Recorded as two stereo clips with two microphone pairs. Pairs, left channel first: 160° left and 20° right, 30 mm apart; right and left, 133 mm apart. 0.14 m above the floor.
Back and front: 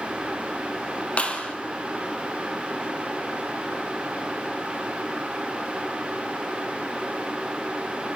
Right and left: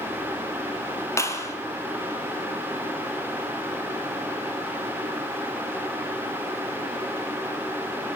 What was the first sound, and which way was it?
A clap, 160° right.